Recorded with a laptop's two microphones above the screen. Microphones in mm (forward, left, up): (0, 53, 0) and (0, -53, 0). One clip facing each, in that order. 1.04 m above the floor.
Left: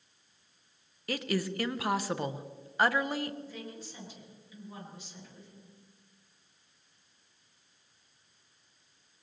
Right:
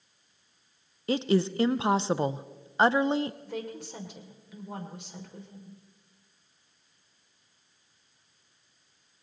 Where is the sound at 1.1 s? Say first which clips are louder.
Right 7 dB; 25° right (ahead or behind), 0.5 m.